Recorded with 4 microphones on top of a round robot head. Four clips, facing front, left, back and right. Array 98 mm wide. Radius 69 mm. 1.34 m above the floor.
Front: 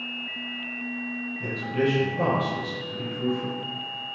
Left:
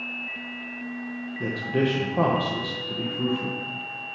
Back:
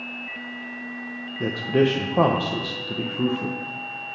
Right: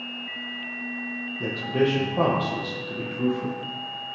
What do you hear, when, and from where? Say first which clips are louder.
1.4 s a man speaking: right 1 dB, back 6 dB; 170° right, 1.2 m